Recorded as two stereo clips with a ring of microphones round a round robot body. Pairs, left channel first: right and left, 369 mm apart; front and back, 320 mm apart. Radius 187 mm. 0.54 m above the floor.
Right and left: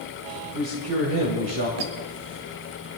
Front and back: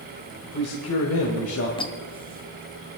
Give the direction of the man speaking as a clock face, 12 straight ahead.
11 o'clock.